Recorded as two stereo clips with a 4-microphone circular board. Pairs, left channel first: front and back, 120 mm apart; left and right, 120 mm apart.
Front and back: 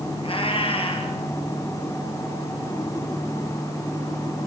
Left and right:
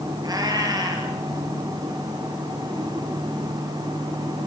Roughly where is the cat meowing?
Ahead right.